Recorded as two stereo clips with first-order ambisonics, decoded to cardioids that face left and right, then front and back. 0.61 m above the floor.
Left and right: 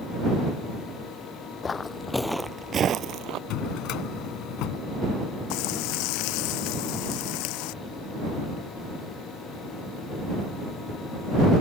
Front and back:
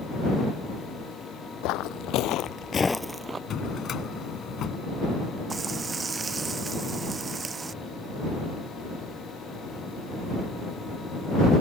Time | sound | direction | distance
1.6 | footsteps | 20° left | ?
3.5 | a drawer | 55° left | ?
5.5 | frying | 110° left | ?